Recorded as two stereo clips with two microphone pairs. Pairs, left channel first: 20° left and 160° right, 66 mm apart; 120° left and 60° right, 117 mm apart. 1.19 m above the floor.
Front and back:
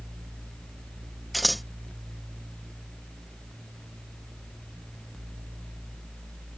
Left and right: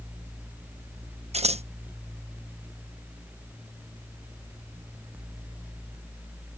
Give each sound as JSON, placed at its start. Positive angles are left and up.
{"t": 1.3, "sound": "scissors", "azimuth_deg": -70}